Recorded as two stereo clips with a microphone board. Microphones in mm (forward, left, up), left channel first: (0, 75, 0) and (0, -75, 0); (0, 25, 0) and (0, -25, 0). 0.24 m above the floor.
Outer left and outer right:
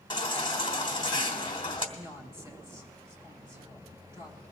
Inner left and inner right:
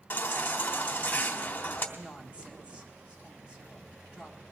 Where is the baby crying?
35° left (ahead or behind), 1.2 m.